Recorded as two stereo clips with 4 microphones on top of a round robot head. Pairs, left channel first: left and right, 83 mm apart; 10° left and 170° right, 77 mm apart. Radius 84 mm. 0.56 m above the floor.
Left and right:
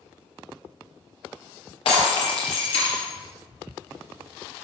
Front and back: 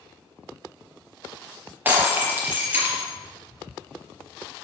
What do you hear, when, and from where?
1.9 s breaking glass: 120° left, 4 m